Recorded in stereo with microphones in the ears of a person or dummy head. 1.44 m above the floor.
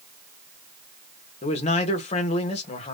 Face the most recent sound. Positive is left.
turn(degrees=35)  # may be behind; listen again after turning